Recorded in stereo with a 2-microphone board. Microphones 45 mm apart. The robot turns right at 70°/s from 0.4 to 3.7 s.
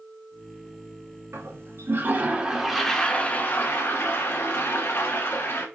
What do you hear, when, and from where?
1.3 s a toilet flushing: 100° right, 0.9 m; by 5.7 s 65° left, 0.9 m